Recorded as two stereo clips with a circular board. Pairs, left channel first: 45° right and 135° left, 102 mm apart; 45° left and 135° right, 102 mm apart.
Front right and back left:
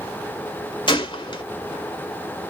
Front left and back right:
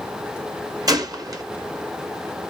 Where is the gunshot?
85° right, 1.0 m.